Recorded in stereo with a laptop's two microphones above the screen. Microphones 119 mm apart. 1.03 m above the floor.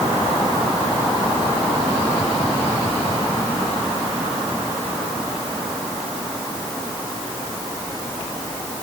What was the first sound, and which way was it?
Only background noise.